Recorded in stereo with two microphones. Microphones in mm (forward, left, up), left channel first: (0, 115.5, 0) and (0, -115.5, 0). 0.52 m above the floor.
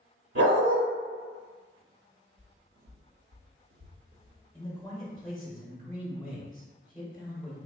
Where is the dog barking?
80° right, 1.7 m.